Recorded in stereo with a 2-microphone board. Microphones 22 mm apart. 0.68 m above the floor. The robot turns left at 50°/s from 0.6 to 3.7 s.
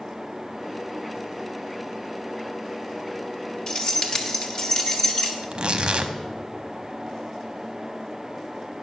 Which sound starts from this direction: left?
Keys jangling, at 3.7 s.